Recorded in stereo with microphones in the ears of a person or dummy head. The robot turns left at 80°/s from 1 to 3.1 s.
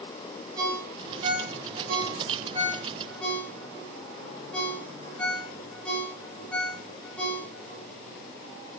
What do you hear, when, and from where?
0.6 s a ringtone: 20° right (ahead or behind), 3 m; by 7.8 s 5° left (ahead or behind), 3 m